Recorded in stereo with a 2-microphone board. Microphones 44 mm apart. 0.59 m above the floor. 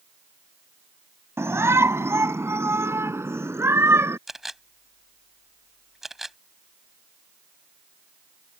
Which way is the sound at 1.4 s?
80° right.